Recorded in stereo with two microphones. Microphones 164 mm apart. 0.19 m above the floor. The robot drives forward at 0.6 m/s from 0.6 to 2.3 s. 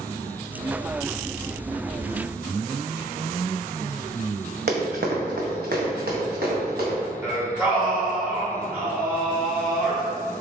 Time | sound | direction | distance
4.7 | running footsteps | 80° right | 0.8 m
7.2 | singing | 10° right (ahead or behind) | 1.3 m